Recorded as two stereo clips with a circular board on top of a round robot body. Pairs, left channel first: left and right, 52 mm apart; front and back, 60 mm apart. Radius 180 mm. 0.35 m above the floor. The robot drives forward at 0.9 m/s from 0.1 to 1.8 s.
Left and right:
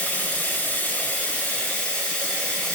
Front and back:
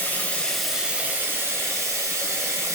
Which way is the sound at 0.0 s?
45° left.